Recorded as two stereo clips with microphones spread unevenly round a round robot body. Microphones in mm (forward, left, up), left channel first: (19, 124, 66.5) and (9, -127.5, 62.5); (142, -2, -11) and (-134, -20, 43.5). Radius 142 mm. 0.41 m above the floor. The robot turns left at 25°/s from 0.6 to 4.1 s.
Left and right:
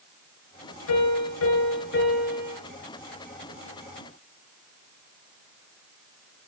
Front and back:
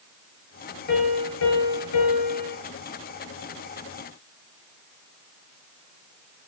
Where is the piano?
60° left, 9 m; by 2.6 s 20° left, 9 m.